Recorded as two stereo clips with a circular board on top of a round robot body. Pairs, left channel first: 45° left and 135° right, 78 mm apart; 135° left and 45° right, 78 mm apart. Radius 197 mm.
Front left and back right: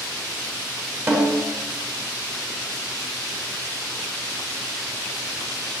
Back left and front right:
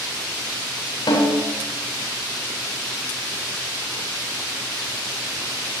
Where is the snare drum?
165° left, 4 m.